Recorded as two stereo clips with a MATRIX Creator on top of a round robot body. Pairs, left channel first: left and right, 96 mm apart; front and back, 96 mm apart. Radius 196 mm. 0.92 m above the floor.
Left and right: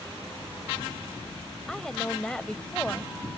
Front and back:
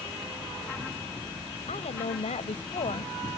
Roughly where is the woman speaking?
Ahead.